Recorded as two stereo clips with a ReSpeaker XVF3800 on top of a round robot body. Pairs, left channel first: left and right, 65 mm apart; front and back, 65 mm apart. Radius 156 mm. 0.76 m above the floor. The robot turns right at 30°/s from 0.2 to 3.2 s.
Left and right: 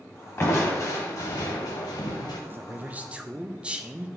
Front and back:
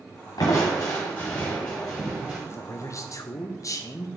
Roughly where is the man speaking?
Ahead right.